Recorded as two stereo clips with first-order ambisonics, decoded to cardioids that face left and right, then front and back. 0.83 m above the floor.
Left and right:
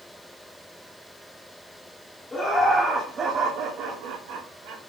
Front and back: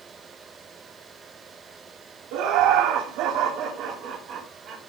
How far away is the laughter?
About 2 m.